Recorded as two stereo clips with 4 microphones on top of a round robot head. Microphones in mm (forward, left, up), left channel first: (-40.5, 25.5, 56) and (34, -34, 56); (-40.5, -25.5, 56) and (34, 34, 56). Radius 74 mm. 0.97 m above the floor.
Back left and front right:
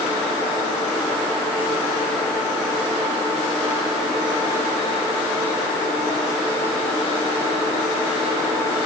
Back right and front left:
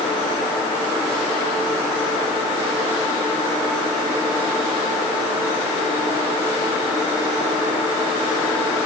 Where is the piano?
I don't hear a piano.